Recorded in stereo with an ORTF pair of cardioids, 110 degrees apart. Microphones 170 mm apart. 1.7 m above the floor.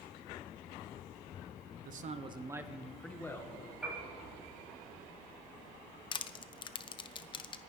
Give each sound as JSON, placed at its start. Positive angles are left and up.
{"t": 1.9, "sound": "a man speaking", "azimuth_deg": -55, "distance_m": 1.1}
{"t": 3.8, "sound": "a piano", "azimuth_deg": -5, "distance_m": 6.5}
{"t": 6.1, "sound": "crushing", "azimuth_deg": 30, "distance_m": 0.8}